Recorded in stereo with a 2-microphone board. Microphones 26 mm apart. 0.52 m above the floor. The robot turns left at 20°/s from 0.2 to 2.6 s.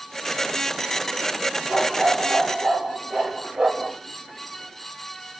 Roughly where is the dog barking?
Right.